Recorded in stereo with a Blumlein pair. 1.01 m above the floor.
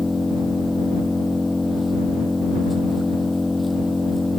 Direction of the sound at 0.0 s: 5° left.